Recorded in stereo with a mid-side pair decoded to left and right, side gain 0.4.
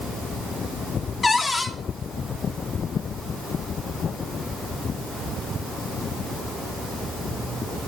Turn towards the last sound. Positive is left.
turn(degrees=40)